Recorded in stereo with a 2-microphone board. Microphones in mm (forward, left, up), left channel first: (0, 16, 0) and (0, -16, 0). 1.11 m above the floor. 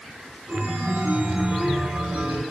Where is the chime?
65° right (ahead or behind), 5 m.